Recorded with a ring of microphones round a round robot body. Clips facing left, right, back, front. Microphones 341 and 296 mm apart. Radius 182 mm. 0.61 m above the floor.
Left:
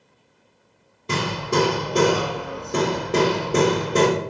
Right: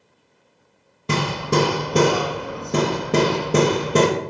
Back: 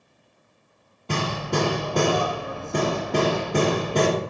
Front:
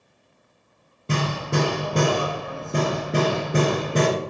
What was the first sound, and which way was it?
Hammering, 70° right.